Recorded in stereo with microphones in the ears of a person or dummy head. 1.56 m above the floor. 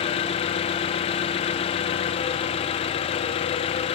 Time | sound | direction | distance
0.0 | an engine running | 30° left (ahead or behind) | 0.7 m